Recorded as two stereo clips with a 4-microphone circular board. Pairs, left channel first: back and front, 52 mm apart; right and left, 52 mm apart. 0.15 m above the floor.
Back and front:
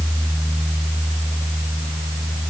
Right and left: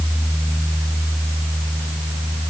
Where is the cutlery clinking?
No cutlery clinking in this recording.